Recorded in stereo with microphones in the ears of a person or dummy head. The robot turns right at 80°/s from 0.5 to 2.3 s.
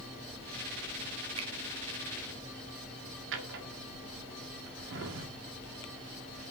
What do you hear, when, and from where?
1.4 s a finger snap: 35° right (ahead or behind), 1.7 m; by 1.5 s 45° right (ahead or behind), 1.7 m
3.3 s a drawer: 70° right (ahead or behind), 2 m